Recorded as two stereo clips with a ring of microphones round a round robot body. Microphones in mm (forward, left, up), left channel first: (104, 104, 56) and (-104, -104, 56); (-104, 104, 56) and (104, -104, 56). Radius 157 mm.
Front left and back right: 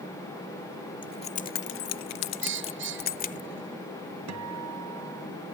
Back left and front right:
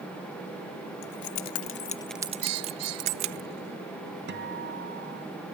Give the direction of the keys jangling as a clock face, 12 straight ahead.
8 o'clock.